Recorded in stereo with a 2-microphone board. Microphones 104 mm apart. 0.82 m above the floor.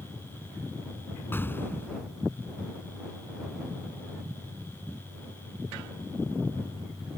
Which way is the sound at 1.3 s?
20° left (ahead or behind).